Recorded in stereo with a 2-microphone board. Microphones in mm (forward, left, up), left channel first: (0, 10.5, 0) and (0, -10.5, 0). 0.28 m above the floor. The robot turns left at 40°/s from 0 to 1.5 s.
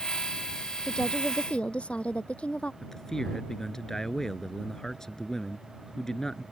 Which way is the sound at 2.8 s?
20° left (ahead or behind).